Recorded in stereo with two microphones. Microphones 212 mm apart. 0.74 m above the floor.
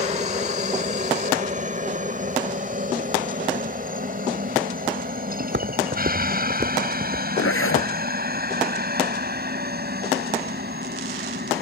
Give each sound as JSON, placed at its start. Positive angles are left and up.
{"t": 0.0, "sound": "a helicopter", "side_deg": -35}
{"t": 5.4, "sound": "footsteps", "side_deg": -60}
{"t": 7.4, "sound": "a zipper", "side_deg": 80}